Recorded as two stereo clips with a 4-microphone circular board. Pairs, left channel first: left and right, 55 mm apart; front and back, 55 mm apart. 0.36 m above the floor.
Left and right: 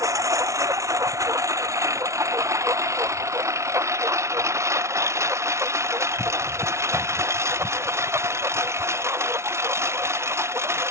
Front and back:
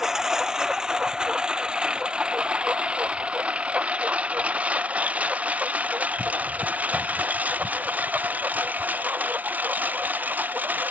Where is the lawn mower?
100° right; by 10.9 s 125° right.